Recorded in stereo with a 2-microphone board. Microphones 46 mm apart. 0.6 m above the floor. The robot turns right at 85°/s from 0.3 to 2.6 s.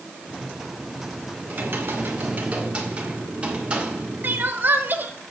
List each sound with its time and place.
1.4 s typing on a keyboard: 125° right, 1.8 m; by 4.5 s 30° right, 1.8 m
4.2 s crying: 45° right (ahead or behind), 0.9 m